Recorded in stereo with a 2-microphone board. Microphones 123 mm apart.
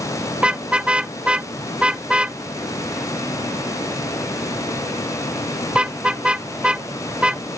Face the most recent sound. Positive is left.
turn(degrees=-10)  # may be behind; listen again after turning